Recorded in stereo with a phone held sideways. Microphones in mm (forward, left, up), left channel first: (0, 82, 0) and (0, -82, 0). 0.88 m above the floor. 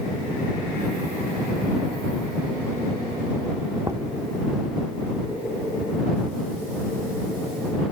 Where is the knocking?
20° right (ahead or behind).